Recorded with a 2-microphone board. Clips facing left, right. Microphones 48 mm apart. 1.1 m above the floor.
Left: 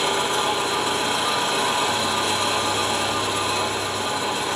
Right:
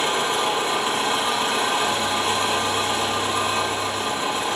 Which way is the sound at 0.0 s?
35° right (ahead or behind).